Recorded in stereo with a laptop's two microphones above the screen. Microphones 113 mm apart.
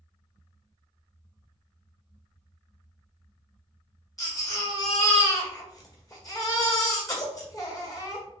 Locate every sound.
4.2 s a baby crying: 30° left (ahead or behind), 1.6 m